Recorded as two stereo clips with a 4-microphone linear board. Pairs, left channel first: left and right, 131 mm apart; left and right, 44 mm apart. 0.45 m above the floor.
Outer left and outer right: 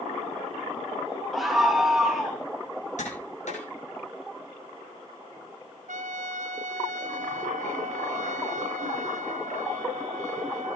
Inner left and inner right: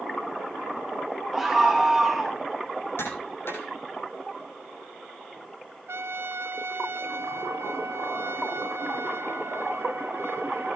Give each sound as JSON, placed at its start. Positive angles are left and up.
{"t": 1.3, "sound": "a scream", "side_deg": 0, "distance_m": 6.0}
{"t": 3.0, "sound": "tapping", "side_deg": 65, "distance_m": 10.0}
{"t": 5.9, "sound": "a trumpet", "side_deg": -70, "distance_m": 1.7}